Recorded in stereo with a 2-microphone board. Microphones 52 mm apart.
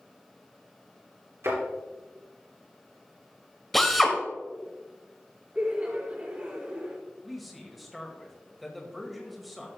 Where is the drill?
5° left (ahead or behind), 1.2 m.